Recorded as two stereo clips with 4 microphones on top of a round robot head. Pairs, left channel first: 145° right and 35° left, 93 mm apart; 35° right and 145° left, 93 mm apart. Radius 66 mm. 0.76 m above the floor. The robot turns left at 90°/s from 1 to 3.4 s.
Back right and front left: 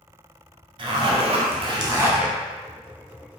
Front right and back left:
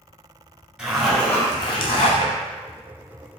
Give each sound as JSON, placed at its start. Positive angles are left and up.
{"t": 0.8, "sound": "a zipper", "azimuth_deg": 60, "distance_m": 0.8}